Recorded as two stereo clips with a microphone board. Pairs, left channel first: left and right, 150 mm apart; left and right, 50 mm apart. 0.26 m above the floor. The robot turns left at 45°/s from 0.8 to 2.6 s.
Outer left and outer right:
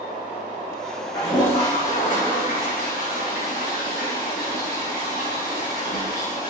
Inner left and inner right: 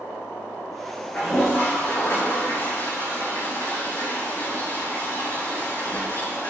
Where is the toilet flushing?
160° left, 7 m; by 6.5 s 90° left, 7 m.